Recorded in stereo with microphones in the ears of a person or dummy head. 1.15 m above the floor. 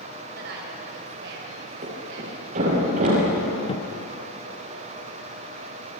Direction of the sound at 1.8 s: 50° right (ahead or behind).